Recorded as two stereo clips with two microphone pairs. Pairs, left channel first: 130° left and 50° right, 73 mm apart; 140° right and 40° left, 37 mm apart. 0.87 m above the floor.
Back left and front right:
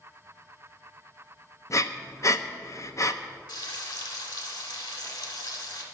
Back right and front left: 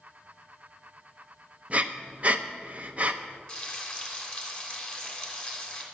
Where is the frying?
150° left, 3 m.